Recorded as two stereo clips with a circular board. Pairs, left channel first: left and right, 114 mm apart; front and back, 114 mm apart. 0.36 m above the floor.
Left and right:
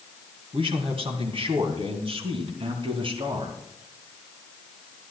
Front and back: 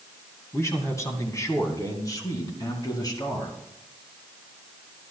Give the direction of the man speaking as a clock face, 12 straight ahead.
2 o'clock.